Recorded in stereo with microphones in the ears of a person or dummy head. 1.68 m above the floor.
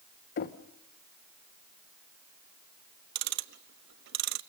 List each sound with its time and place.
0.4 s knocking: 50° left (ahead or behind), 0.9 m
3.1 s ticking: 65° right (ahead or behind), 0.7 m